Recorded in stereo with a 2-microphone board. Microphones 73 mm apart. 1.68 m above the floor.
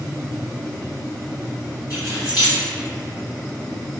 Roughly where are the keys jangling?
Left.